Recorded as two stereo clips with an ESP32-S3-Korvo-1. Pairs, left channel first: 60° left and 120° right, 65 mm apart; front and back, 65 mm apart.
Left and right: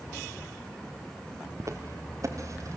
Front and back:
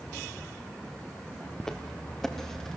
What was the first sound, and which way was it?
Footsteps, 80° right.